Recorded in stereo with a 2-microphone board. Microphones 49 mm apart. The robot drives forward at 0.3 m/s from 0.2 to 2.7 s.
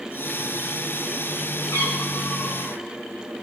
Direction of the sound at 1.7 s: 80° left.